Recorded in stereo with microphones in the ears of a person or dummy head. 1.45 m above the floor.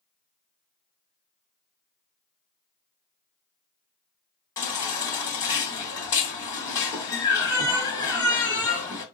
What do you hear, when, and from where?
4.6 s a baby crying: 15° left (ahead or behind), 1.3 m